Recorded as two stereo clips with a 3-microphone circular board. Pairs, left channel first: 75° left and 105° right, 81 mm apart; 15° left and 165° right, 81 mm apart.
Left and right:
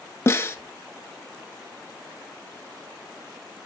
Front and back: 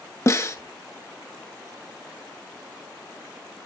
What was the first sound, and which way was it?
A snare drum, 40° left.